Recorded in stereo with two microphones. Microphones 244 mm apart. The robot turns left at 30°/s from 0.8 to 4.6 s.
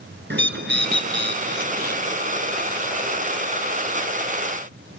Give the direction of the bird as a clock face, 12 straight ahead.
3 o'clock.